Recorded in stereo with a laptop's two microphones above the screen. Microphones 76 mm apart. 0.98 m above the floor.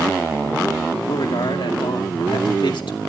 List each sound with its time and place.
1.1 s a man speaking: 75° left (ahead or behind), 2 m